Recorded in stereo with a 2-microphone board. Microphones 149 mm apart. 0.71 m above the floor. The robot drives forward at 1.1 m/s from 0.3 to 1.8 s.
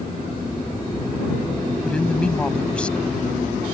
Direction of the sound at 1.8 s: 10° left (ahead or behind).